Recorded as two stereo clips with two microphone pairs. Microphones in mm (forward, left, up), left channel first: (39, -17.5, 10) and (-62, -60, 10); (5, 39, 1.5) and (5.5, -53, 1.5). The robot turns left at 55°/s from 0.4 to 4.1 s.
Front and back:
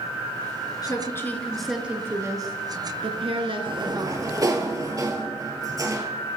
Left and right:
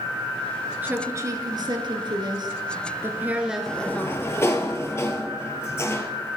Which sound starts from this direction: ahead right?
A woman speaking, at 0.8 s.